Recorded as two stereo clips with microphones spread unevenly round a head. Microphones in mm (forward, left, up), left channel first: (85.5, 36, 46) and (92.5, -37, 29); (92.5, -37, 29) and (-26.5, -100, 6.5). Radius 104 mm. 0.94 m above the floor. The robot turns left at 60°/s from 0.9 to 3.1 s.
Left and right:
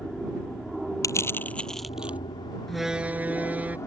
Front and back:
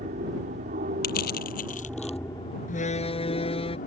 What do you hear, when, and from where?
0.0 s an aircraft: 175° right; by 3.9 s 50° left
1.0 s crushing: 55° left; by 2.2 s 15° right
2.7 s a door slam: 10° left; by 3.8 s 15° right